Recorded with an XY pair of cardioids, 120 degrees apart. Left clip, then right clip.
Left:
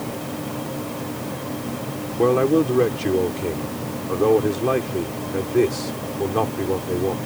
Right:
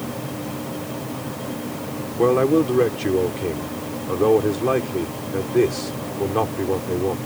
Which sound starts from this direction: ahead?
A man speaking, at 2.2 s.